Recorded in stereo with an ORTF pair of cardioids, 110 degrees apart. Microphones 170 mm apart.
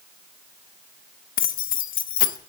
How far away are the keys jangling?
About 0.6 m.